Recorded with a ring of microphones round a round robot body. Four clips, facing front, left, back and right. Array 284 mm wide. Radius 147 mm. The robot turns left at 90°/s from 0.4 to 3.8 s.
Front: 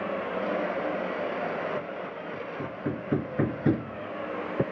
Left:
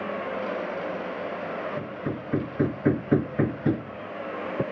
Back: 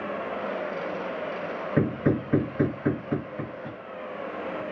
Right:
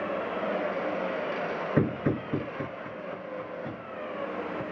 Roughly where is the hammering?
Behind right.